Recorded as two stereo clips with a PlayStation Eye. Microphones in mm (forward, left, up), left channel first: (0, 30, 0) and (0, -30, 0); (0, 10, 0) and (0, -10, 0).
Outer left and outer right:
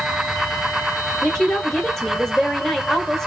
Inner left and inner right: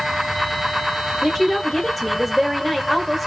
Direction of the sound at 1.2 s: 10° left (ahead or behind).